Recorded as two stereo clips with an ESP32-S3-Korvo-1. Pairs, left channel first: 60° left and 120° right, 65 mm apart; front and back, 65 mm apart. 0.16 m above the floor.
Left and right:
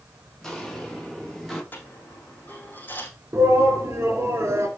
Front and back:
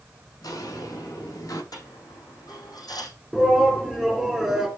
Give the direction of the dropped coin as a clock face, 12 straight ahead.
12 o'clock.